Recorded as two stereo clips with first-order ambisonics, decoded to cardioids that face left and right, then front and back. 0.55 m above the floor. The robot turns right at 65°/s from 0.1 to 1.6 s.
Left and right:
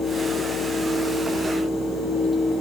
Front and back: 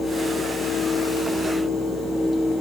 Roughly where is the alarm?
No alarm in this recording.